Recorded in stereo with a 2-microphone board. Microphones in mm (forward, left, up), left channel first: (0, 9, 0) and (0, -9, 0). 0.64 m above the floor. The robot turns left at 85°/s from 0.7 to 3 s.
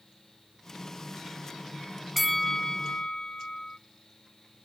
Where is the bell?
175° left, 0.6 m; by 3.8 s 105° left, 0.6 m.